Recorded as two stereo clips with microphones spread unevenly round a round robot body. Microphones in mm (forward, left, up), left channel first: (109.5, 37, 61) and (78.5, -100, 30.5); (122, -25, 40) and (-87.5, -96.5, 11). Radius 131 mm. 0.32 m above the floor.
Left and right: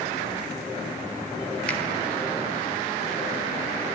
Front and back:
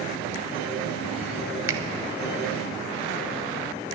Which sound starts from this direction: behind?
A finger snap, at 1.7 s.